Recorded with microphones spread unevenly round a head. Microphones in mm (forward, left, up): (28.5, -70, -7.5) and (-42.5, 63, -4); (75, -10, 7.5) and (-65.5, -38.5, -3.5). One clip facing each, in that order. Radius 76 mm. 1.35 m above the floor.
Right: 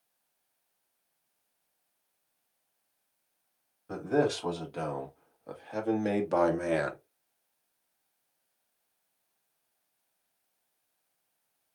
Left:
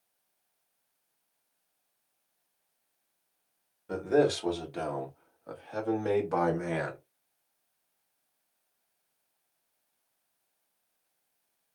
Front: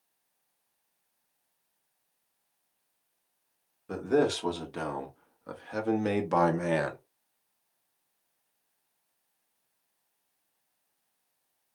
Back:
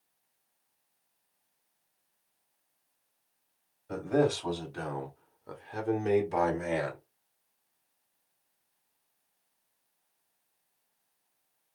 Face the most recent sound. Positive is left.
turn(degrees=-20)